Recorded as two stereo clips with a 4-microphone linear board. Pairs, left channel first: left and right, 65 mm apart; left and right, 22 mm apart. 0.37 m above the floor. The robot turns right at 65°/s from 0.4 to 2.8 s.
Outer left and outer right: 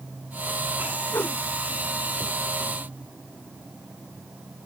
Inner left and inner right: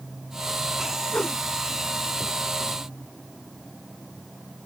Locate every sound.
1.1 s a whoosh: 45° left (ahead or behind); by 1.4 s 25° left (ahead or behind)